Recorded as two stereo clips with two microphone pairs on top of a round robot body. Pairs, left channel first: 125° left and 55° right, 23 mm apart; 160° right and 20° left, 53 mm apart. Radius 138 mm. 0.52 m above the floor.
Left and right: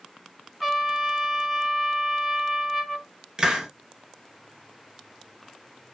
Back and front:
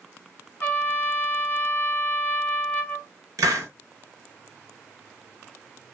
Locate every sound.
0.6 s a trumpet: 125° right, 1.4 m
3.4 s a hiss: 5° left, 0.8 m